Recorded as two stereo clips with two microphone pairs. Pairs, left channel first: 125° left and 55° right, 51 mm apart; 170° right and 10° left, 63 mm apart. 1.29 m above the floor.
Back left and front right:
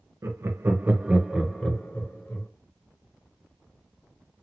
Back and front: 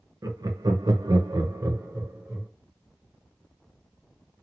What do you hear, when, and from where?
0.2 s laughter: 20° right, 0.7 m; by 2.5 s 70° left, 1.0 m